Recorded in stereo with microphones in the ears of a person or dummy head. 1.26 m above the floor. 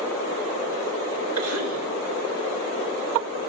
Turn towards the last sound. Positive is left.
turn(degrees=-80)